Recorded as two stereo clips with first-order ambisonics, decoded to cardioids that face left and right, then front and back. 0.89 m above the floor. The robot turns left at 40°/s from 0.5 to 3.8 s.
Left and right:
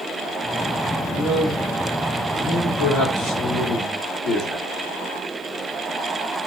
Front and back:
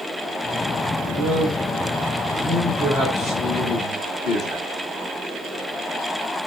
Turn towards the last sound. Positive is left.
turn(degrees=55)